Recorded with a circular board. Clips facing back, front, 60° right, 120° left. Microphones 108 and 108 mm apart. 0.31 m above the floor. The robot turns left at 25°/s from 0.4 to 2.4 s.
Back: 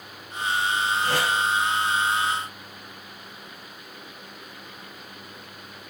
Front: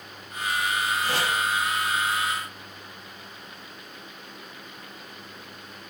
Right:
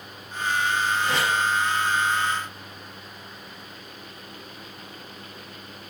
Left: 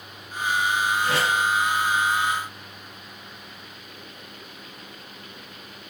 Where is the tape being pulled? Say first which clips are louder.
Back 2 dB, left 1 dB; 150° right, 2.5 m; by 1.3 s 155° right, 2.5 m.